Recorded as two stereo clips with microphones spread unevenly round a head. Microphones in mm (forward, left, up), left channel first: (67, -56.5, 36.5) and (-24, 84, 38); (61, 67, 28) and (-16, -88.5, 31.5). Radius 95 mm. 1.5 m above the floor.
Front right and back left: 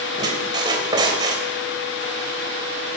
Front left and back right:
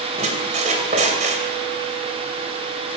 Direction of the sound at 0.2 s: 170° right.